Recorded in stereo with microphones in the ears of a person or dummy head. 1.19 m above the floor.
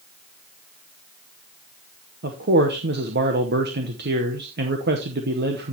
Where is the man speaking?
50° right (ahead or behind), 0.8 m.